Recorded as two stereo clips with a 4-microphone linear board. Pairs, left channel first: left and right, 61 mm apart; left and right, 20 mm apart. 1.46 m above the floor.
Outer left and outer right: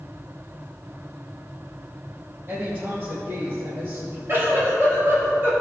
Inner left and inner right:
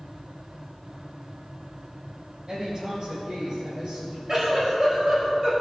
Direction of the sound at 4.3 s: 40° right (ahead or behind).